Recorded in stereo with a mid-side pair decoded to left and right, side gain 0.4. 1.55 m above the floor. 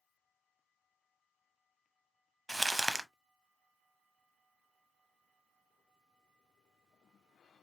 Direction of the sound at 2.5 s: 15° right.